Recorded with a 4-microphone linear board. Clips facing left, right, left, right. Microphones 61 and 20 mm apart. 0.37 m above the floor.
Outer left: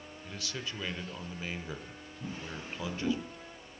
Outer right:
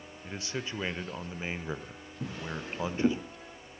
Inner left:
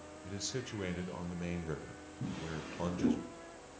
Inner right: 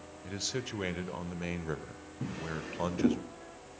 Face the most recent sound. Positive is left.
turn(degrees=-70)  # may be behind; listen again after turning